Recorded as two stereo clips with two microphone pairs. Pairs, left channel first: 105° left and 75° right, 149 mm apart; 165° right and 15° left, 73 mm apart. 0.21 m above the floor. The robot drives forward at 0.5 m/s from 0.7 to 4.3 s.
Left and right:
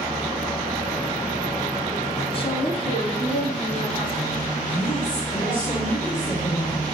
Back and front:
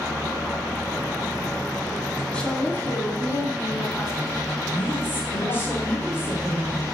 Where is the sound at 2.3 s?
130° left, 1.4 m; by 5.7 s 155° left, 2 m.